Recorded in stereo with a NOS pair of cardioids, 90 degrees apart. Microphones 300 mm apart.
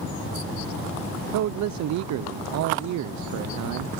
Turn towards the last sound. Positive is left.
turn(degrees=-70)